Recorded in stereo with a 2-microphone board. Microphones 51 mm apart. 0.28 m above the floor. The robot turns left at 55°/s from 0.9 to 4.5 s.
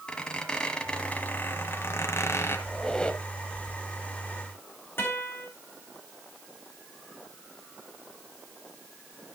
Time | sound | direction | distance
0.1 | a squeak | 160° left | 1.5 m
2.7 | a squeak | 170° left | 0.9 m
5.0 | a guitar | 45° left (ahead or behind) | 4.5 m